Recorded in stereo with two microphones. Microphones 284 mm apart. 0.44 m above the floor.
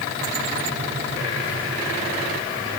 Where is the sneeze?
No sneeze in this recording.